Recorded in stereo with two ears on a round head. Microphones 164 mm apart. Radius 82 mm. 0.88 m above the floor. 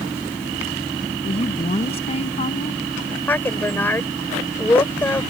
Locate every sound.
1.2 s a woman speaking: 35° left (ahead or behind)
3.3 s a woman speaking: 10° left (ahead or behind)